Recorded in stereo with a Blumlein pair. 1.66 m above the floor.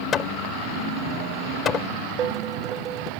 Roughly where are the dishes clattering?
Ahead right.